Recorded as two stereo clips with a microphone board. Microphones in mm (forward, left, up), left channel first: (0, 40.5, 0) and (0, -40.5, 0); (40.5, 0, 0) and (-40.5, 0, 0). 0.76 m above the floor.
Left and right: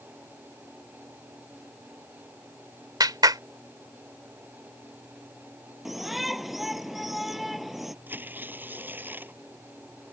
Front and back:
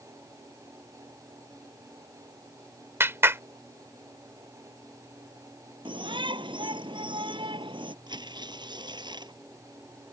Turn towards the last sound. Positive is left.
turn(degrees=-155)